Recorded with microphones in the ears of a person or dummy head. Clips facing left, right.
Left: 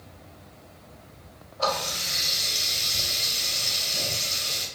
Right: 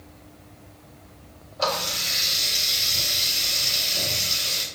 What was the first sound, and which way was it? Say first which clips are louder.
A running tap: right 1 dB; 50° right (ahead or behind).